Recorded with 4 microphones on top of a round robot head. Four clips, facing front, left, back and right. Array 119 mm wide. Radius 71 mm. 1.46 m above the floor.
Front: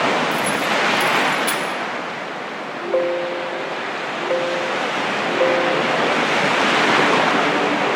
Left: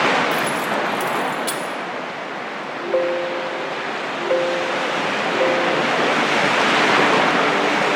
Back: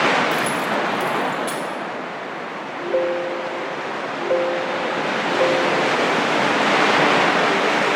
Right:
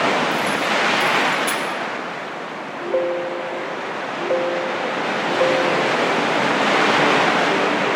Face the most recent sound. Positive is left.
turn(degrees=5)